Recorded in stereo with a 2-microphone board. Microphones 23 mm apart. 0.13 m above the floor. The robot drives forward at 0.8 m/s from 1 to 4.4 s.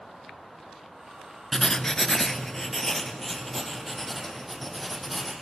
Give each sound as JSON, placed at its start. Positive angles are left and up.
{"t": 1.5, "sound": "writing", "side_deg": 25, "distance_m": 0.8}